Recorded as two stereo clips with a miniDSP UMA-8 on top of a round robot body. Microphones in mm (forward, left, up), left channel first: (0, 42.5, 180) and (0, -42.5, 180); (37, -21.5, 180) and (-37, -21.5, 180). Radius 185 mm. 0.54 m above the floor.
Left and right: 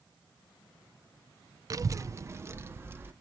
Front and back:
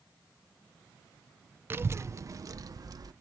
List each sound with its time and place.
1.7 s a child speaking: 125° right, 0.7 m; by 3.1 s 150° right, 1.2 m